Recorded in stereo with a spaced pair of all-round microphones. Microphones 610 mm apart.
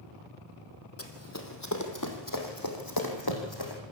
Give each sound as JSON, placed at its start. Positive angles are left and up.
{"t": 1.0, "sound": "running footsteps", "side_deg": 20, "distance_m": 2.5}